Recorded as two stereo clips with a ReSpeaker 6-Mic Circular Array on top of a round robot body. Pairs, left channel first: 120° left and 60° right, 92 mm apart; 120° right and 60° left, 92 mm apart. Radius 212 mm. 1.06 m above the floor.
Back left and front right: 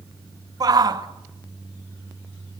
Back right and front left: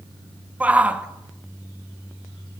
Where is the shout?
15° right, 2 m.